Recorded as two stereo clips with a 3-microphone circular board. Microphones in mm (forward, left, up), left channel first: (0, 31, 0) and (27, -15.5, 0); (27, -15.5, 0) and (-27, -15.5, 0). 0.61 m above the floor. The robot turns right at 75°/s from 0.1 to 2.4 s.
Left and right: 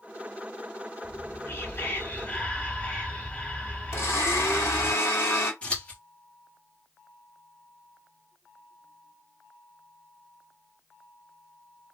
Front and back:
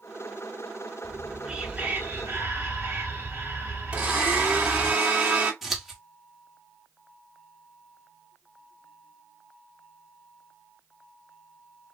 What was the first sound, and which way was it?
Whispering, 75° left.